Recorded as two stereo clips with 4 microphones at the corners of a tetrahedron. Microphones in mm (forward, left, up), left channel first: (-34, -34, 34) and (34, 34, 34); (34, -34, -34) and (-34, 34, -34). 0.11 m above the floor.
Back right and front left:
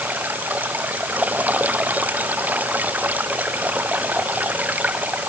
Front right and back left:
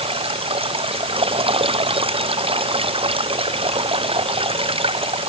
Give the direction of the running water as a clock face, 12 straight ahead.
8 o'clock.